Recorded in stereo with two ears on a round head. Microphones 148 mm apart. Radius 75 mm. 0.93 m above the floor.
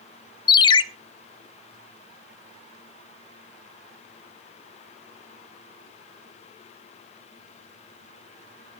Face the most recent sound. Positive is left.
turn(degrees=25)  # may be behind; listen again after turning